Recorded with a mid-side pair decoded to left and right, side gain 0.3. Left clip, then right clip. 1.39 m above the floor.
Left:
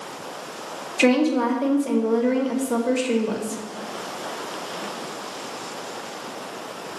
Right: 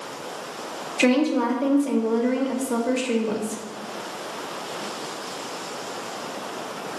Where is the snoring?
No snoring in this recording.